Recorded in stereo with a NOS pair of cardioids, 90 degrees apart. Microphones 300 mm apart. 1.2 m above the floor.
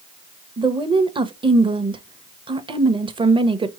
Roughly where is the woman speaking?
Ahead.